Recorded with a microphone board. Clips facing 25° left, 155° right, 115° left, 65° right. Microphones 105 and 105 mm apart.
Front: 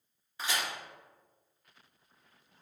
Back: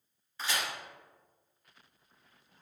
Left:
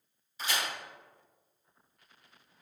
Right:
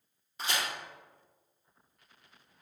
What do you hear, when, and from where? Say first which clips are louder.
0.4 s a crack: even, even; 50° right, 1.7 m